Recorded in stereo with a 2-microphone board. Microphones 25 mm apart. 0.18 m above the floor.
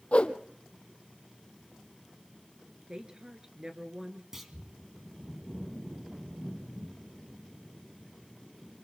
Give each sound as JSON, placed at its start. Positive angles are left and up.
{"t": 0.1, "sound": "a whoosh", "side_deg": 50, "distance_m": 1.4}
{"t": 2.9, "sound": "a woman speaking", "side_deg": -30, "distance_m": 2.5}
{"t": 4.3, "sound": "a clunk", "side_deg": -15, "distance_m": 1.9}